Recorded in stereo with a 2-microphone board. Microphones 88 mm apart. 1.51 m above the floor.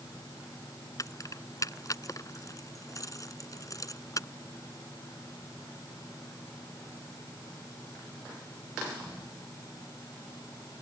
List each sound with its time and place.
1.0 s keys jangling: 40° left (ahead or behind)